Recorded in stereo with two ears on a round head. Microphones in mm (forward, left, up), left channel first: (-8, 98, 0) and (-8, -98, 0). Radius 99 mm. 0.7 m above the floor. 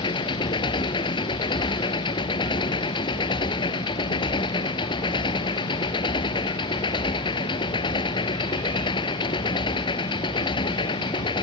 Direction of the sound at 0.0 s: 20° left (ahead or behind).